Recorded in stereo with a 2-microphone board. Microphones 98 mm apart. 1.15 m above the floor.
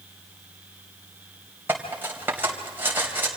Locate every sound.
1.7 s cutlery clinking: 20° right (ahead or behind), 3.5 m